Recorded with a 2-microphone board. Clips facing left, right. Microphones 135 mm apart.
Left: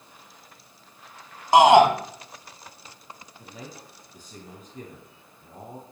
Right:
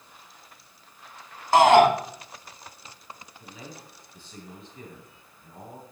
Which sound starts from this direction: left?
A man speaking, at 3.4 s.